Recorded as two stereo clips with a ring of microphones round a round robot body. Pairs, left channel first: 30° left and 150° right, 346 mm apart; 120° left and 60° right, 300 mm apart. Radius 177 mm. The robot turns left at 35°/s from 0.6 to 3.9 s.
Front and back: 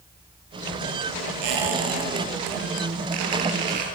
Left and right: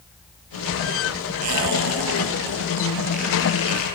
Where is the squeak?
110° right, 5 m; by 3.9 s 165° left, 5 m.